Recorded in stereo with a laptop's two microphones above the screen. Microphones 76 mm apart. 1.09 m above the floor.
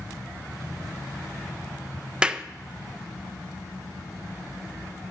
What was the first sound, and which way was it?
A clap, 15° right (ahead or behind).